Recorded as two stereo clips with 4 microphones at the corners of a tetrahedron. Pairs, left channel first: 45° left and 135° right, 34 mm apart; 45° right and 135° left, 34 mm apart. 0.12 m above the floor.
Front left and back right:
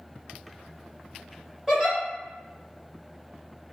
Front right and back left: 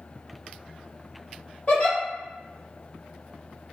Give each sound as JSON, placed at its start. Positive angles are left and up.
{"t": 1.7, "sound": "a giggle", "azimuth_deg": -65, "distance_m": 1.9}